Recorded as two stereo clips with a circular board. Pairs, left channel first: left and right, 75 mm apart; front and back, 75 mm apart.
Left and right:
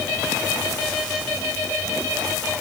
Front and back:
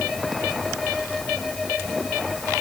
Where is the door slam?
No door slam in this recording.